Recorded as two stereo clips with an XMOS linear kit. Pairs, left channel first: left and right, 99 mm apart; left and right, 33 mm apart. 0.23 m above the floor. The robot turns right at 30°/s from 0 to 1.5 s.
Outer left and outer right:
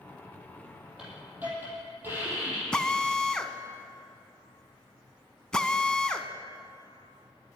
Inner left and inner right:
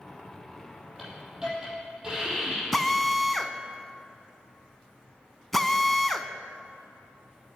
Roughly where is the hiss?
Centre.